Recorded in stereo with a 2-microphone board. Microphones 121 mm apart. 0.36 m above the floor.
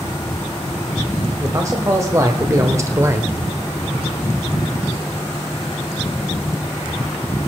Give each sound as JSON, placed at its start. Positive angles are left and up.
{"t": 1.4, "sound": "a man speaking", "side_deg": -25, "distance_m": 1.5}